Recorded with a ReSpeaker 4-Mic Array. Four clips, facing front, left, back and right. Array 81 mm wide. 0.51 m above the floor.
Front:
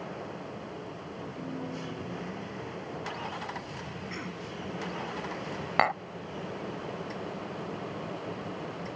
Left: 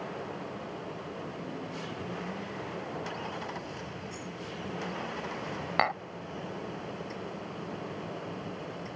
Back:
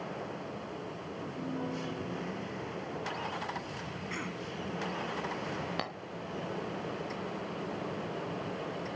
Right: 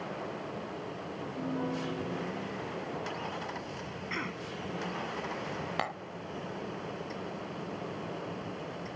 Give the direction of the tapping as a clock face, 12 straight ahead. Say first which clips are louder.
Left 9 dB, front 12 dB; 11 o'clock.